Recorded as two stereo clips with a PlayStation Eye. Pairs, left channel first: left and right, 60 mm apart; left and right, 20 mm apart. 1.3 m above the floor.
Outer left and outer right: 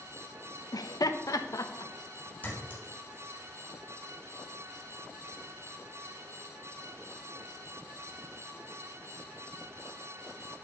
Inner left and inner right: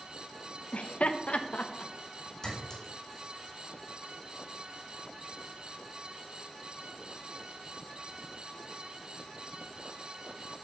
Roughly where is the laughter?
Left.